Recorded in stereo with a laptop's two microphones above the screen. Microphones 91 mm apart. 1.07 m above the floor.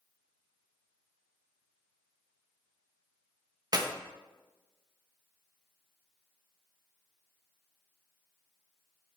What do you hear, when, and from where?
3.7 s a clap: 45° right (ahead or behind), 1.2 m